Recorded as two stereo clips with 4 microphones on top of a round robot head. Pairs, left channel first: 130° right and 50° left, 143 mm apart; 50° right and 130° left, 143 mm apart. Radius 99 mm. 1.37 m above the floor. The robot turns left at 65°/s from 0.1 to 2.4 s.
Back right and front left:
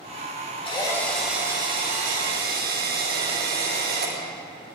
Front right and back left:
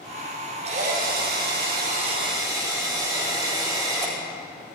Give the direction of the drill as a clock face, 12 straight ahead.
6 o'clock.